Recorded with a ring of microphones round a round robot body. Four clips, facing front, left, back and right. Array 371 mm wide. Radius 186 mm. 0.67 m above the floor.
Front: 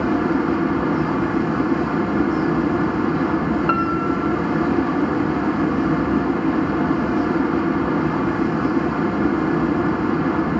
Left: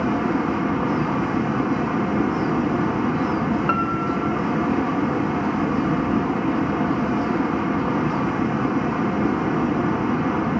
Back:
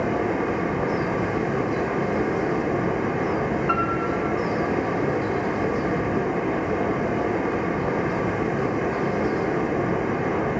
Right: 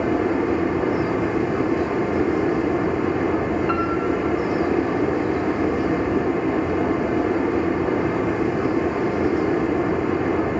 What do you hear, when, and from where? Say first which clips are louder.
0.0 s running water: right 1 dB, front 4 dB; 35° left, 1.7 m
3.7 s a piano: right 1 dB, front 4 dB; 35° left, 0.7 m